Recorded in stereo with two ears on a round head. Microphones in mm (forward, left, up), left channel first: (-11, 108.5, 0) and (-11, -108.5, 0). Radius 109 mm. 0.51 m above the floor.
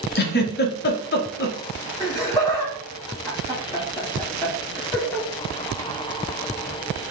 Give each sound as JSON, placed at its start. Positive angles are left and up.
{"t": 0.1, "sound": "a giggle", "side_deg": 40, "distance_m": 0.6}
{"t": 2.0, "sound": "laughter", "side_deg": 10, "distance_m": 0.9}